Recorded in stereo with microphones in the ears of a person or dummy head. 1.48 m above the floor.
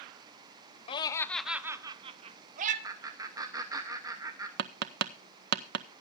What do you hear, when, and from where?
0.9 s laughter: 30° left (ahead or behind), 0.6 m; by 2.7 s 50° right (ahead or behind), 1.1 m
2.8 s laughter: 20° right (ahead or behind), 1.0 m
4.6 s tapping: 65° right (ahead or behind), 0.5 m